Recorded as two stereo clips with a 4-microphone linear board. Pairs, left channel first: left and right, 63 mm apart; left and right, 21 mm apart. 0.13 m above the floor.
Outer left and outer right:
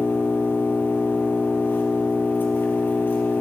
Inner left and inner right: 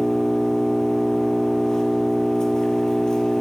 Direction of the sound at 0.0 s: 35° left (ahead or behind).